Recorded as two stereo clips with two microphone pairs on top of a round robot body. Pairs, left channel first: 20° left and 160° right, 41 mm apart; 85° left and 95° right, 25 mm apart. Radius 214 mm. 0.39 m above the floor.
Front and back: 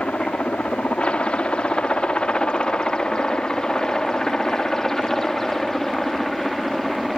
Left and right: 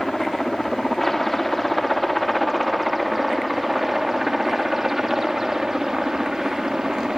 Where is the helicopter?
10° left; by 7.2 s 65° right.